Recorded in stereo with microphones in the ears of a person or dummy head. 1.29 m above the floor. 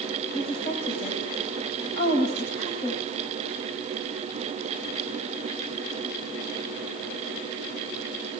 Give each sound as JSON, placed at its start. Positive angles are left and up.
{"t": 0.3, "sound": "a woman speaking", "side_deg": 30, "distance_m": 8.5}